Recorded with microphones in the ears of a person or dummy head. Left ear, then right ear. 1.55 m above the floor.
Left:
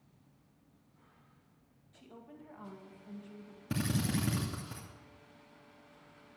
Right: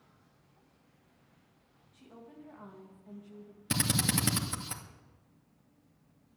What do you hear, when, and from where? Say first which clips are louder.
1.9 s a woman speaking: right 1 dB; 10° left (ahead or behind), 2 m
3.7 s a drill: right 5 dB; 70° right (ahead or behind), 2.5 m